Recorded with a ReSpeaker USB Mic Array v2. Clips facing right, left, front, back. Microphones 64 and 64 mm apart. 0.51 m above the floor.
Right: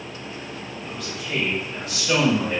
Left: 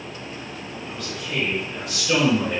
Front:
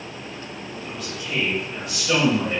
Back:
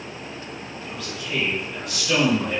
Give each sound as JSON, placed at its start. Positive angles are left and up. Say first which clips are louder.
{"t": 0.8, "sound": "a man speaking", "louder": "right 1 dB, even", "azimuth_deg": -35, "distance_m": 1.6}